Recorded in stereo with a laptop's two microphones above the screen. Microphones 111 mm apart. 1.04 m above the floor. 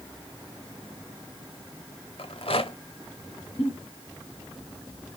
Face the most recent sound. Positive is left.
turn(degrees=60)  # may be behind; listen again after turning